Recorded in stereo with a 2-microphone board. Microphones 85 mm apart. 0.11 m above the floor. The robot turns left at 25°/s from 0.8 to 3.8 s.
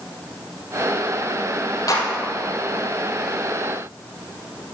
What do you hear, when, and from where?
1.9 s a clap: 50° left (ahead or behind), 3.5 m; by 2.1 s 55° left (ahead or behind), 3.5 m